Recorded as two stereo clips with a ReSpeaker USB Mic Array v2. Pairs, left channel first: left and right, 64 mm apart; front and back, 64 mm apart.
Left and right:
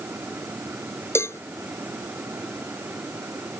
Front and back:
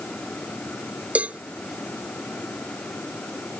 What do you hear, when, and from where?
1.1 s a cowbell: 115° left